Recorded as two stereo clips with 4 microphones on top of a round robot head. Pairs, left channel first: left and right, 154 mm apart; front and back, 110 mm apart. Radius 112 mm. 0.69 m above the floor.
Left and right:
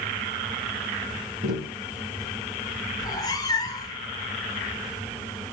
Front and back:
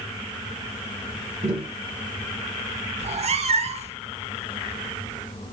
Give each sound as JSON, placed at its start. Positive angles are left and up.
{"t": 1.4, "sound": "tapping", "azimuth_deg": -140, "distance_m": 5.0}
{"t": 3.0, "sound": "a cat meowing", "azimuth_deg": 160, "distance_m": 1.3}